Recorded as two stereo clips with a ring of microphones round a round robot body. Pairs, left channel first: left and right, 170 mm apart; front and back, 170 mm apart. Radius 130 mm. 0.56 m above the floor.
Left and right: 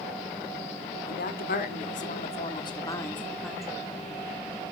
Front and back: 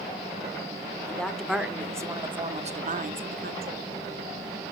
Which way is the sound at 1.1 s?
80° left.